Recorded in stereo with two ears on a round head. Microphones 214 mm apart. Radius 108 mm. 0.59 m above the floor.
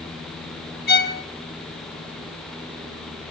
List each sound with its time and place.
0.9 s a violin: 40° left (ahead or behind), 1.1 m